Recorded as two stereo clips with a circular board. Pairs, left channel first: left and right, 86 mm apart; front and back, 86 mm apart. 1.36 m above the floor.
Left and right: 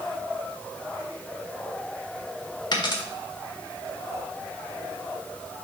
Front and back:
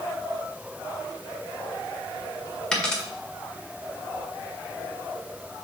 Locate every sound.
2.7 s a dropped coin: 80° left, 1.6 m